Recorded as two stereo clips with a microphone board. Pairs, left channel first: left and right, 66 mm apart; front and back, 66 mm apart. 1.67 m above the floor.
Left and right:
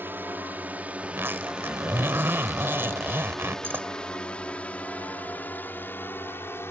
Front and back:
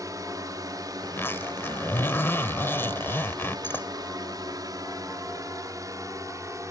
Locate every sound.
0.0 s a drone: 150° right; by 6.7 s 145° left
1.0 s a zipper: 45° right